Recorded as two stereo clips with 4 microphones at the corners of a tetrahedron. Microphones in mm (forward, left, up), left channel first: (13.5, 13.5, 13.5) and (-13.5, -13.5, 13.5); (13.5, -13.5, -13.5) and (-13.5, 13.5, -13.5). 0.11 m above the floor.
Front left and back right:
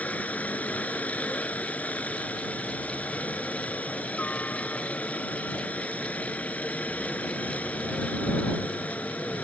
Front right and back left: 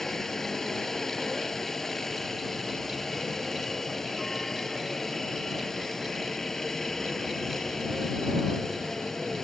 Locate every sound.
0.0 s a helicopter: 30° left